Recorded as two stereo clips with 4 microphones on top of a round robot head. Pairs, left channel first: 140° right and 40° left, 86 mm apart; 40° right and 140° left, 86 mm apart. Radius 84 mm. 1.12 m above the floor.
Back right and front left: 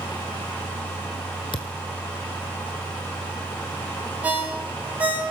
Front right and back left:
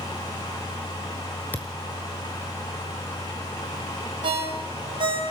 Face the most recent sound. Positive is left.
turn(degrees=110)